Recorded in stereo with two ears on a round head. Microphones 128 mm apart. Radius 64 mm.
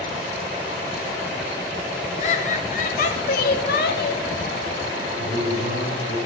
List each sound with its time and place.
2.2 s laughter: 55° left (ahead or behind), 2 m; by 4.2 s 75° left (ahead or behind), 1.8 m
5.2 s a man speaking: 70° left (ahead or behind), 7 m